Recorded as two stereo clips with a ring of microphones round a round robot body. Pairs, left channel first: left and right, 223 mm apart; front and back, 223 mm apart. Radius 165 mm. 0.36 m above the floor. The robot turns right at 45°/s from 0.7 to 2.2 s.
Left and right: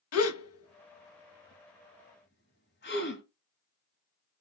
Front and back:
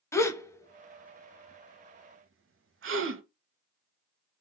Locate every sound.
0.1 s a gasp: 80° left, 0.8 m; by 3.2 s 145° left, 0.8 m